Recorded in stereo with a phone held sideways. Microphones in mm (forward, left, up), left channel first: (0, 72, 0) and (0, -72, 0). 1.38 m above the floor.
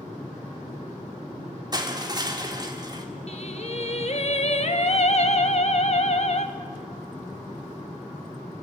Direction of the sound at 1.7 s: 30° right (ahead or behind).